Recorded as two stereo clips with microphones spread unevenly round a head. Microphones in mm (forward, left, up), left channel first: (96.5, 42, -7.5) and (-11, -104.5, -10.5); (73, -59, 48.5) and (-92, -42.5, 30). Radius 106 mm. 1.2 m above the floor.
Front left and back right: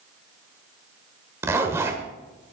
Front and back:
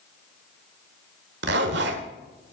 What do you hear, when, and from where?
1.4 s a zipper: 160° left, 1.2 m